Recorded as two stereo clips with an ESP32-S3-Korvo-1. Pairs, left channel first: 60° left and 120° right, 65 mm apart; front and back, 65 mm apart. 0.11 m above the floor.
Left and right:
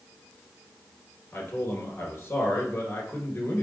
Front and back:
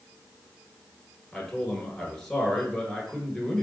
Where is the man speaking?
75° left, 1.3 m.